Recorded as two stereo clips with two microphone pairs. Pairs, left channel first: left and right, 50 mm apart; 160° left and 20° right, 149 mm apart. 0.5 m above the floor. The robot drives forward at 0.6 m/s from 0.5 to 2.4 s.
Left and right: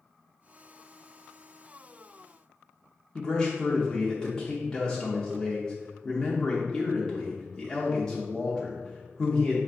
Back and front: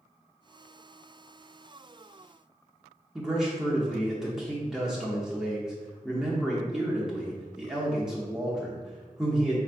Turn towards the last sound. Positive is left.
turn(degrees=55)